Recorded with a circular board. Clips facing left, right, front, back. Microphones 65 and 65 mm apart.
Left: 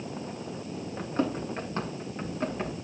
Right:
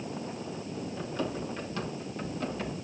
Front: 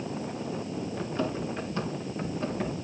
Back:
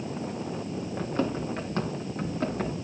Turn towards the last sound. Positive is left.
turn(degrees=155)